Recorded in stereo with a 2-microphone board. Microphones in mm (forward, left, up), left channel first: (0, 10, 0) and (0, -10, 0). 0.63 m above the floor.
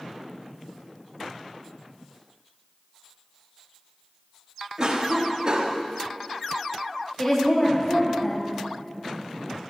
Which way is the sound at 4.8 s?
40° right (ahead or behind).